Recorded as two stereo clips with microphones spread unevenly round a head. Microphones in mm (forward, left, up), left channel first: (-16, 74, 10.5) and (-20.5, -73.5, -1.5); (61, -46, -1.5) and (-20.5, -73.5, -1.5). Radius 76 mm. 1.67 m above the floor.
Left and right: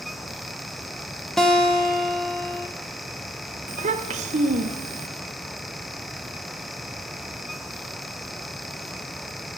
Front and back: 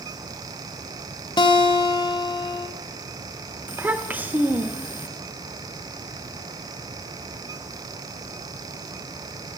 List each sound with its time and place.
1.4 s a guitar: 5° left, 0.9 m
3.7 s a child speaking: 105° right, 0.7 m